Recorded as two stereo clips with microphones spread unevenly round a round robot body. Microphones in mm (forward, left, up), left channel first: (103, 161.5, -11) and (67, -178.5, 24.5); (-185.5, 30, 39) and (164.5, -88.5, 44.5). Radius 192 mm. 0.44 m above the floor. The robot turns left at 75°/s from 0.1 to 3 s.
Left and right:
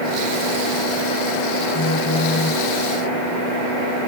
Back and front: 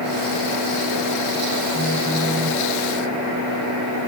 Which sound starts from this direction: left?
A phone buzzing, at 1.7 s.